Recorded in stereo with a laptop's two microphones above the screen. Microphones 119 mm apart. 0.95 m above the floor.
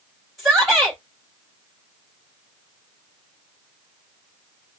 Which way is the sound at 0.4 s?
Centre (ahead or behind).